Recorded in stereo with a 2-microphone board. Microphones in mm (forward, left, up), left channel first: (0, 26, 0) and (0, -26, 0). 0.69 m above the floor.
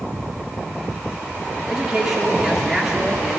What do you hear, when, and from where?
1.7 s a man speaking: 15° right (ahead or behind), 1.7 m